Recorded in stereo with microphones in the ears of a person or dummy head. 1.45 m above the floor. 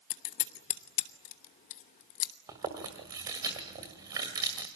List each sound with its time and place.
0.1 s scissors: 40° left (ahead or behind), 0.9 m
2.5 s chewing: 10° right (ahead or behind), 1.7 m